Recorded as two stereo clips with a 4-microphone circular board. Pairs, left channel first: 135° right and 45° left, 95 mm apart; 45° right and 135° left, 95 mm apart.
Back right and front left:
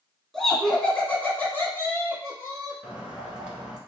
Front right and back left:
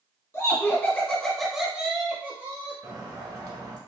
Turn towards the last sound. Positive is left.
turn(degrees=120)